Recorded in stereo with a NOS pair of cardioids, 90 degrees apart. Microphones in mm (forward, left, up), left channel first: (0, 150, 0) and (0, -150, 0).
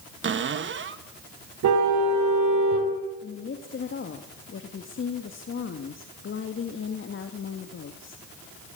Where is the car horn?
70° right, 5 m.